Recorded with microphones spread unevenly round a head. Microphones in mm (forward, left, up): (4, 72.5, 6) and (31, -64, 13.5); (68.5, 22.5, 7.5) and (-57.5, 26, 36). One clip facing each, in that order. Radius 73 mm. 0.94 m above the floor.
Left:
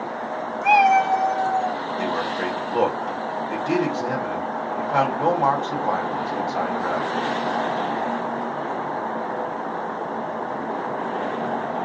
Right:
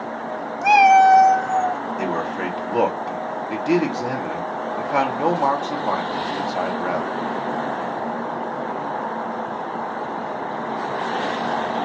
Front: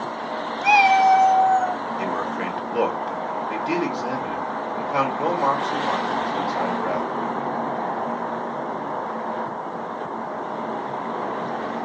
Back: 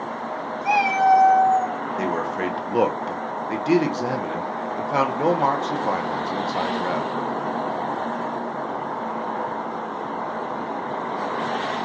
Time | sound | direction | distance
0.6 | a cat meowing | 25° right | 0.5 m
2.0 | a man speaking | 150° right | 0.8 m